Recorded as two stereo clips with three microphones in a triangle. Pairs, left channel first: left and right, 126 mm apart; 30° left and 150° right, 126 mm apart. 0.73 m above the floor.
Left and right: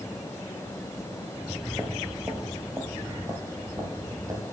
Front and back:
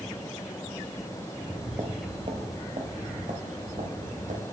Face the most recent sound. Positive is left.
turn(degrees=-150)